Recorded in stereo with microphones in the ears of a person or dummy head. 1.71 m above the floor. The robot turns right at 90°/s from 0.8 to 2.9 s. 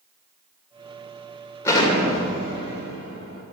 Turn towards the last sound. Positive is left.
turn(degrees=130)